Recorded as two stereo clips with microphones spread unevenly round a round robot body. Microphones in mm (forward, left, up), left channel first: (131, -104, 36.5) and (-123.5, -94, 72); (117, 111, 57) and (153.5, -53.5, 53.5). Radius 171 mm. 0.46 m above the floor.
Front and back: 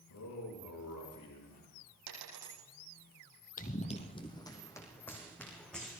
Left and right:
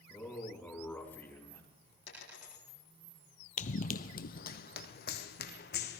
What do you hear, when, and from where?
0.1 s a man speaking: 20° left, 5.5 m; by 1.6 s 25° left, 3.5 m
2.1 s a dropped coin: 150° left, 7 m
3.6 s running footsteps: 65° left, 0.8 m; by 6.0 s 90° left, 2.0 m